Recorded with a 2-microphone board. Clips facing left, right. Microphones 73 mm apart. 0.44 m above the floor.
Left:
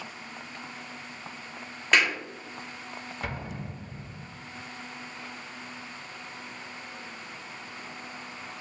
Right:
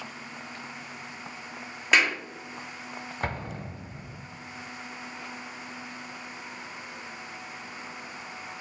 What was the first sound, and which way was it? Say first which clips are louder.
A clap: right 1 dB; 5° right (ahead or behind).